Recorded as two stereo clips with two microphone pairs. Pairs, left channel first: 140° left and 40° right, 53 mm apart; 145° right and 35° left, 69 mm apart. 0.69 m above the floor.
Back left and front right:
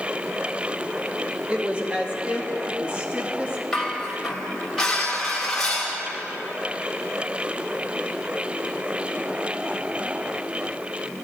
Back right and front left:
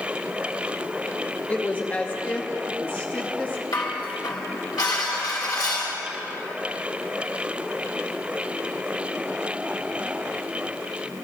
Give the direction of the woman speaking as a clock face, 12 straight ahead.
3 o'clock.